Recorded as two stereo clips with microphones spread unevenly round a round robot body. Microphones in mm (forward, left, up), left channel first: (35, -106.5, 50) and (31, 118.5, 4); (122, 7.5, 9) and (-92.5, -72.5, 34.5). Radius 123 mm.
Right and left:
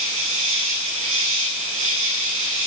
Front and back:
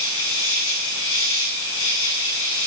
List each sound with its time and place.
0.0 s an insect: 60° left, 7.5 m